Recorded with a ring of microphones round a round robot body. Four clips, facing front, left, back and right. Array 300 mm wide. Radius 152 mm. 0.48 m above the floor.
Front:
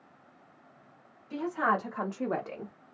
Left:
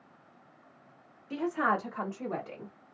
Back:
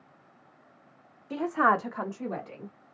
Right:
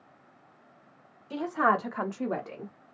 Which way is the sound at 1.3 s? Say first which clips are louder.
Right 3 dB, back 4 dB; 165° right.